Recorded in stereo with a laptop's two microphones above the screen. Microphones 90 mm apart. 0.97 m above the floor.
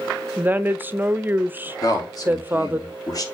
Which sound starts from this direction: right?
A woman speaking, at 0.4 s.